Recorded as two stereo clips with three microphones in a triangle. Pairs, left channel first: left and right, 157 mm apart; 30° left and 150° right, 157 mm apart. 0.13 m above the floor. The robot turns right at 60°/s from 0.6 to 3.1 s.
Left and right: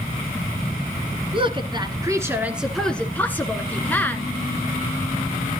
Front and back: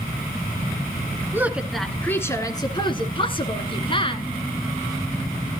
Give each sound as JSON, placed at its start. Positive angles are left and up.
{"t": 1.3, "sound": "a woman speaking", "azimuth_deg": -85, "distance_m": 1.3}